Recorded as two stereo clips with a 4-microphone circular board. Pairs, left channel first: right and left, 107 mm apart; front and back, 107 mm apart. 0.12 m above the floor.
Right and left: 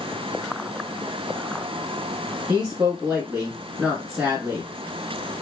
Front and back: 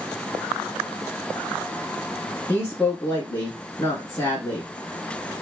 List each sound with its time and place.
2.5 s a woman speaking: 20° left, 1.1 m